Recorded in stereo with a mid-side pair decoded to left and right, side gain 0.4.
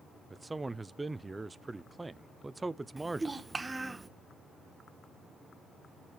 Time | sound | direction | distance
0.3 | a man speaking | 20° right | 0.7 m
3.0 | a child speaking | 25° right | 1.3 m